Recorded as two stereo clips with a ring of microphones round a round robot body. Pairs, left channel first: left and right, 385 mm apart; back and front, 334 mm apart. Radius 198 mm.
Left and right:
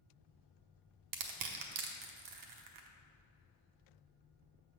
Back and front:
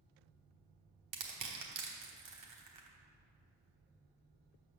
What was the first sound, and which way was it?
Crushing, 45° right.